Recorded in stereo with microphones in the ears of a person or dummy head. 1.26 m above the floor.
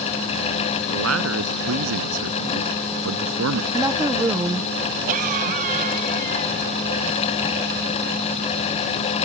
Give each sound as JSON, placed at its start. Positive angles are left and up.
{"t": 0.9, "sound": "a man speaking", "side_deg": -85}
{"t": 3.7, "sound": "a woman speaking", "side_deg": -10}
{"t": 5.1, "sound": "a cough", "side_deg": -50}